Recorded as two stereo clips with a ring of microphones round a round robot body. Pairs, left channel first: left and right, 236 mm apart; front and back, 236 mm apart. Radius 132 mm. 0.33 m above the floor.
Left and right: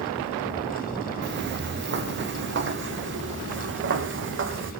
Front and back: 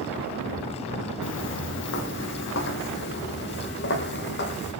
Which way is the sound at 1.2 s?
45° right.